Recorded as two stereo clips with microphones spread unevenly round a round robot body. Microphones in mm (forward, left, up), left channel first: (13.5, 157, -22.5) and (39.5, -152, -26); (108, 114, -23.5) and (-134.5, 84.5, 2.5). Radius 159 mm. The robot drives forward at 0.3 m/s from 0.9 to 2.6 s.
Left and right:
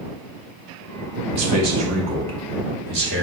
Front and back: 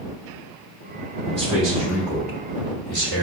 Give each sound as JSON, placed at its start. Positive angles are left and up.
{"t": 1.4, "sound": "a man speaking", "azimuth_deg": -120, "distance_m": 0.9}